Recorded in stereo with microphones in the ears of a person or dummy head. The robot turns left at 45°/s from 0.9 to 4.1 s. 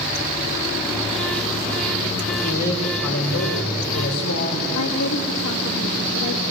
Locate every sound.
2.4 s a man speaking: 140° left, 4.5 m; by 4.7 s 65° left, 4.5 m
4.8 s a woman speaking: 80° left, 2.5 m